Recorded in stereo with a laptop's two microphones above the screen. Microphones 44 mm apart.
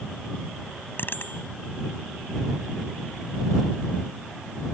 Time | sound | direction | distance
0.9 | a bicycle bell | 50° left (ahead or behind) | ?